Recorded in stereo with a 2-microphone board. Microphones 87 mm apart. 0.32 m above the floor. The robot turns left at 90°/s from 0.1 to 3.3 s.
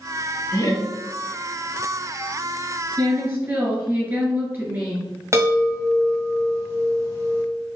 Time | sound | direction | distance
0.5 | laughter | 145° left | 1.8 m
3.0 | a woman speaking | 50° right (ahead or behind) | 2.0 m
5.3 | a chime | 30° right (ahead or behind) | 1.4 m